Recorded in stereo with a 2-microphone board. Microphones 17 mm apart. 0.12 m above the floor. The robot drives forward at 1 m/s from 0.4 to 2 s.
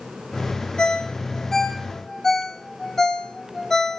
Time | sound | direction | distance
0.8 | a ringtone | 55° left (ahead or behind) | 1.0 m